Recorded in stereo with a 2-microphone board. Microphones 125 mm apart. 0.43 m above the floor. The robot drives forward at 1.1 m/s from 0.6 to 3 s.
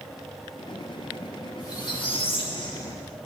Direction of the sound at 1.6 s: 30° left (ahead or behind).